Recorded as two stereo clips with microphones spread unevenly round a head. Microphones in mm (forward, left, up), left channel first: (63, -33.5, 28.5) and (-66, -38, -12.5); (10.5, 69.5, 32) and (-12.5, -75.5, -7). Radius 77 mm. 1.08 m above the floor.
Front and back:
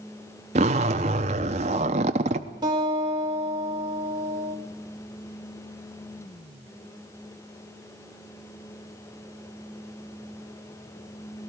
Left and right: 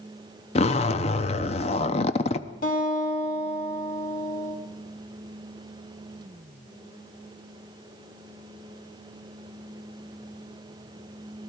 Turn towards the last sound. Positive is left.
turn(degrees=115)